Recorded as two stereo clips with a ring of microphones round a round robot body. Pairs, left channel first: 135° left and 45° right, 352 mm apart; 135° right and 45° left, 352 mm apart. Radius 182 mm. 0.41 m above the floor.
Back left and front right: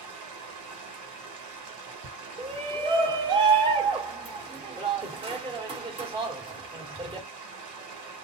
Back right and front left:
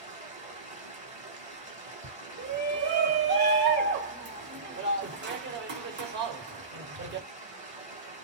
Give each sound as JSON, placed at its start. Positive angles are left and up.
{"t": 0.0, "sound": "running water", "azimuth_deg": -20, "distance_m": 1.7}
{"t": 2.4, "sound": "a shout", "azimuth_deg": 20, "distance_m": 1.3}